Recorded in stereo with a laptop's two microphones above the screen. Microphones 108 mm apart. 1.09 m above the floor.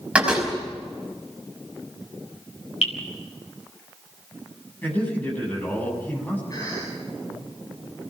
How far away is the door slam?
About 5.5 m.